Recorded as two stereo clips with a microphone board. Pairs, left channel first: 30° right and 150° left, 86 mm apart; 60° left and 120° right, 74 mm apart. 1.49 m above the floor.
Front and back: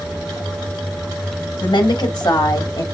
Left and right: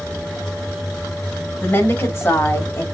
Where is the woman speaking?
Straight ahead, 2.5 m; by 2.8 s 15° left, 1.5 m.